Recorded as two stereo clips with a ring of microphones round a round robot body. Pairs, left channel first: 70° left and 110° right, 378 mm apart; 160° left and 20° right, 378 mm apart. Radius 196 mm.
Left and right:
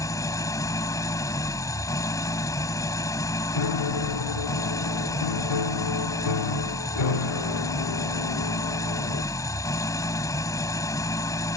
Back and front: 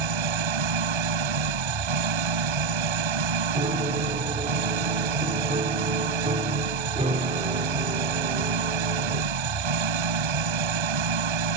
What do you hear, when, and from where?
0.0 s an engine running: 15° right
3.5 s a piano: 50° left